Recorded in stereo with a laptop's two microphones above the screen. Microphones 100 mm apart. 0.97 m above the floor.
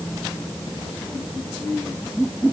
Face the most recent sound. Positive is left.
No sound to turn to.